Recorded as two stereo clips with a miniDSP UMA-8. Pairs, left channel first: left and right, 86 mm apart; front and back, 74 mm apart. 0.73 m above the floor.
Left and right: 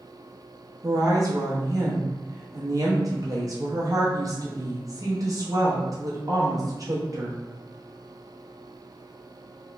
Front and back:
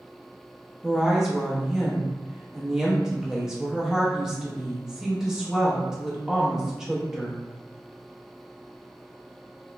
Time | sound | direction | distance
0.8 | a woman speaking | 100° right | 0.6 m